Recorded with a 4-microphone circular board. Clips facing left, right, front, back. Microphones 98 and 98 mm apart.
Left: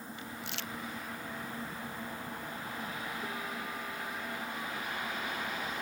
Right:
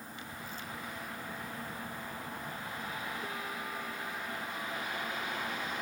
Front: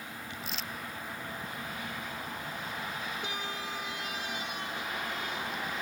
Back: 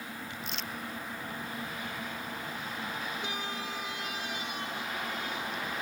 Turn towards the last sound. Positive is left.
turn(degrees=90)